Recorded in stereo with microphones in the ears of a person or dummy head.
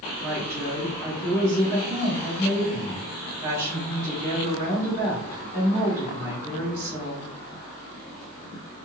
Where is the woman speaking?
10° right (ahead or behind), 1.5 m.